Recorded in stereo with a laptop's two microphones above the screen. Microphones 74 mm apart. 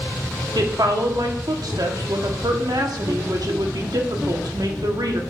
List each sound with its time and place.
0.6 s a woman speaking: 60° right (ahead or behind), 1.5 m